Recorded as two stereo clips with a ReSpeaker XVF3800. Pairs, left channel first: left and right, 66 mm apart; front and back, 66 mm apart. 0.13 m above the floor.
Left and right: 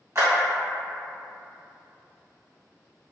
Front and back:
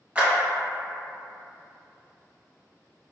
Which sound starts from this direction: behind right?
A clap, at 0.1 s.